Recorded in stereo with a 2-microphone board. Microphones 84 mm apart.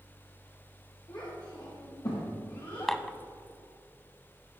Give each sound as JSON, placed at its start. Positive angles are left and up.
{"t": 1.1, "sound": "a child speaking", "side_deg": 60, "distance_m": 4.5}
{"t": 2.9, "sound": "dishes clattering", "side_deg": 5, "distance_m": 0.8}